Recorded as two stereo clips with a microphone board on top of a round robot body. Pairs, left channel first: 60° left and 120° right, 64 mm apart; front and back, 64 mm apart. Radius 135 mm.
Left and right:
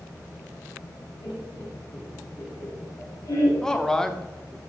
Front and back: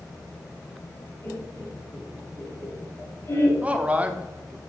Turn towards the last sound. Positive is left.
turn(degrees=135)